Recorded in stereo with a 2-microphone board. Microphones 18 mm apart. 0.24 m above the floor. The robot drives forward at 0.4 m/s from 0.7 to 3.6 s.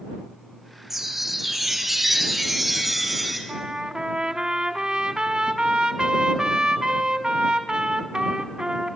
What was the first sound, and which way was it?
A chime, 10° right (ahead or behind).